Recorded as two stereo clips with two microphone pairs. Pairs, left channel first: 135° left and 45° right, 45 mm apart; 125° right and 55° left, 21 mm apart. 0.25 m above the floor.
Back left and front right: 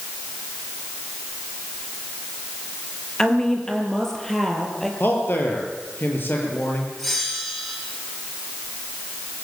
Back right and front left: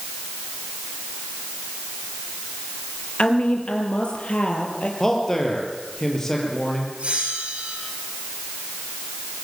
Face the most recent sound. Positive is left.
turn(degrees=55)